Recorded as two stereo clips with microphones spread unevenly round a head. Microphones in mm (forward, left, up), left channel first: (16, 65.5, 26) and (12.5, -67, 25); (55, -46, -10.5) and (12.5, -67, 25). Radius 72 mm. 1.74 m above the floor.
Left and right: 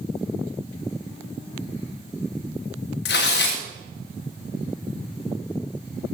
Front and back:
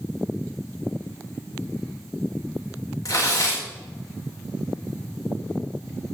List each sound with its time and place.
3.0 s tearing paper: 100° left, 3 m